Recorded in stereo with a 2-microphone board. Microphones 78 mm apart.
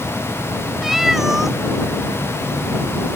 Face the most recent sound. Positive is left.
turn(degrees=-5)  # may be behind; listen again after turning